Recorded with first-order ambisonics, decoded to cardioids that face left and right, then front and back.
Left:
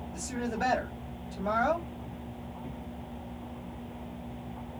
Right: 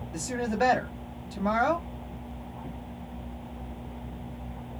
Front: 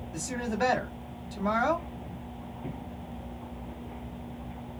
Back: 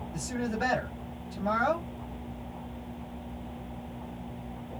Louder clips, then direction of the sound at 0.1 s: Right 6 dB, front 2 dB; 65° right.